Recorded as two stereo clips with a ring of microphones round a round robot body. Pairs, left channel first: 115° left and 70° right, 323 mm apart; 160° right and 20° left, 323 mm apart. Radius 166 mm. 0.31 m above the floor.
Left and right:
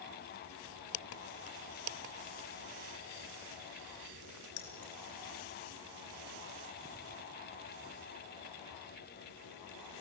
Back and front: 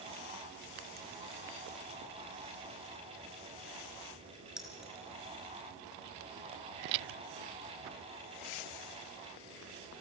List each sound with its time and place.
4.6 s keys jangling: 110° left, 4 m